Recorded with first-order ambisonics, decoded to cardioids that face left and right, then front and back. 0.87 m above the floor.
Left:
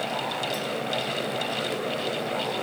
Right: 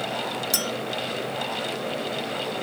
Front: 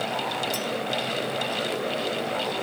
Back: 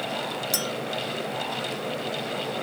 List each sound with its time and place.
0.5 s a clink: 120° right, 0.5 m